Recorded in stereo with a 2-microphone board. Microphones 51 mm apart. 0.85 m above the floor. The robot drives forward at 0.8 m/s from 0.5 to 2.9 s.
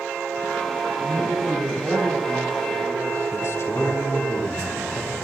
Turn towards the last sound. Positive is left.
turn(degrees=60)  # may be behind; listen again after turning